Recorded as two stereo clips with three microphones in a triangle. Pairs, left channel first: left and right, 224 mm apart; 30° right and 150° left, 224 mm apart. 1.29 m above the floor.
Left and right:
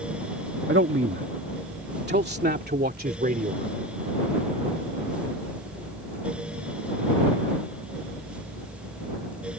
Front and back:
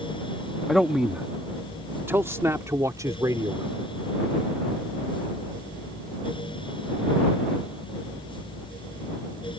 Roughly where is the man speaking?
Behind right.